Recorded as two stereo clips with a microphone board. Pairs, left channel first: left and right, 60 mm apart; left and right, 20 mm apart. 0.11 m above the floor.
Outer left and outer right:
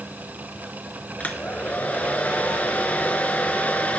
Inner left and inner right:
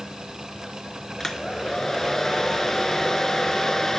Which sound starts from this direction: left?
A hair dryer, at 1.2 s.